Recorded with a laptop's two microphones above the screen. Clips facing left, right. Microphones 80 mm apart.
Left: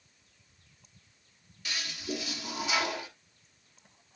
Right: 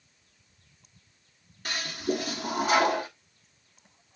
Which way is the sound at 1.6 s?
45° right (ahead or behind).